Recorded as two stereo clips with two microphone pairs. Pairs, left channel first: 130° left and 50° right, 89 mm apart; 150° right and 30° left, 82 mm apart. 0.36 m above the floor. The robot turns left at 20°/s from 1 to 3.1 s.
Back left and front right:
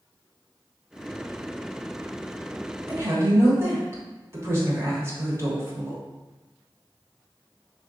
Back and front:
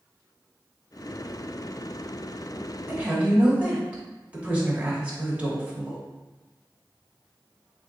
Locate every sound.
2.9 s a woman speaking: 25° right, 1.1 m; by 6.0 s 30° right, 1.1 m